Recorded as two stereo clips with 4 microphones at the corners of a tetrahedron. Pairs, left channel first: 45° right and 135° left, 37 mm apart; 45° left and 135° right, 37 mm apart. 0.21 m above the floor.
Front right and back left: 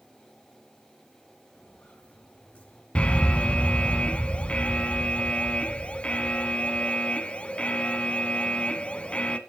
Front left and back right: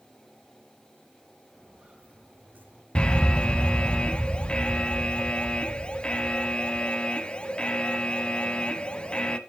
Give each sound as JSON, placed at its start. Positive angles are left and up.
{"t": 1.5, "sound": "footsteps", "azimuth_deg": -80, "distance_m": 5.0}
{"t": 3.0, "sound": "an alarm", "azimuth_deg": -5, "distance_m": 0.9}